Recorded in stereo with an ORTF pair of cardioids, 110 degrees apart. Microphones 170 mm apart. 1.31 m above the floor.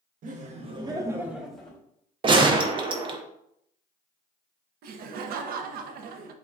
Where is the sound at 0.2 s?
55° right, 0.9 m; by 1.8 s 5° left, 1.2 m.